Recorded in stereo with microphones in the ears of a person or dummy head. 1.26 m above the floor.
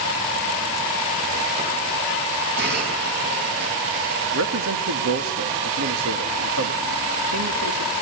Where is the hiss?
60° right (ahead or behind), 6.5 m.